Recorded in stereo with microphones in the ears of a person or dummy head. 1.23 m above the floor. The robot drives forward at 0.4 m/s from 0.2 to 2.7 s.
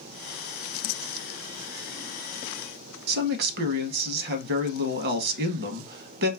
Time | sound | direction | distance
3.1 | a man speaking | 50° right (ahead or behind) | 0.6 m